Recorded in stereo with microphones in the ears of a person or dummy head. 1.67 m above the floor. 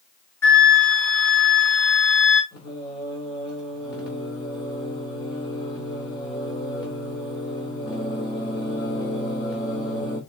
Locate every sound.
0.4 s a flute: 15° left (ahead or behind), 1.2 m
2.5 s singing: 30° left (ahead or behind), 2.5 m